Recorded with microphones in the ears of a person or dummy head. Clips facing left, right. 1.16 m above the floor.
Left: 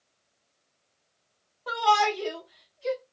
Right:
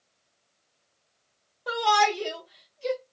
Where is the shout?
15° right (ahead or behind), 1.7 m; by 3.0 s 55° right (ahead or behind), 1.4 m.